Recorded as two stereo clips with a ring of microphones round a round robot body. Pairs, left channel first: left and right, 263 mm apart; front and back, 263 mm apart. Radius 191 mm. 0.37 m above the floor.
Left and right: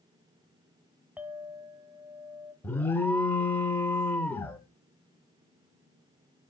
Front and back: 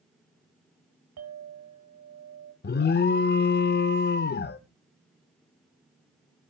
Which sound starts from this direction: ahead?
An alarm, at 2.6 s.